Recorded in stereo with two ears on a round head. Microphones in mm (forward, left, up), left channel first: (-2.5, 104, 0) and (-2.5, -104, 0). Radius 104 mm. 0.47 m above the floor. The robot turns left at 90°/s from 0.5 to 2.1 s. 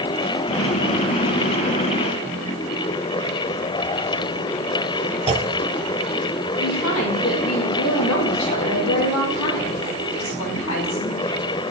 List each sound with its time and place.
5.3 s a clunk: 25° right (ahead or behind), 0.7 m
6.6 s a woman speaking: 65° left (ahead or behind), 4.5 m